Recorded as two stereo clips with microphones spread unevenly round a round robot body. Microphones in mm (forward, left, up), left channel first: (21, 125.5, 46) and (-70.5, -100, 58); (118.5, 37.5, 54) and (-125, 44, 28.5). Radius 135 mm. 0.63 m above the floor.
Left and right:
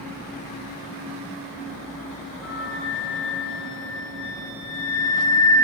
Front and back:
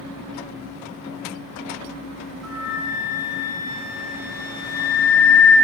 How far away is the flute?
About 1.3 m.